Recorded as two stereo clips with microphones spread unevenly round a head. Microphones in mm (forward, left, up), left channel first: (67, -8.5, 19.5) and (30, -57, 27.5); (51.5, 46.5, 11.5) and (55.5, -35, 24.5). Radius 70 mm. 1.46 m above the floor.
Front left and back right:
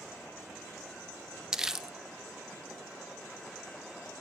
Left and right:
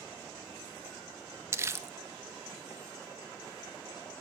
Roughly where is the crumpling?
Ahead right.